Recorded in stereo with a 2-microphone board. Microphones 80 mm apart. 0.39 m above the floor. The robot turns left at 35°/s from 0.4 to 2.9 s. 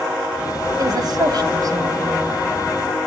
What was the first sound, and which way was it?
A woman speaking, 60° right (ahead or behind).